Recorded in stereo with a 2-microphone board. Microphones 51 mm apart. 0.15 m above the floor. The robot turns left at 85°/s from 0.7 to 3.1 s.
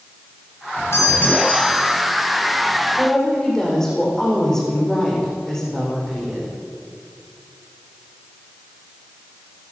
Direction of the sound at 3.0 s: Centre (ahead or behind).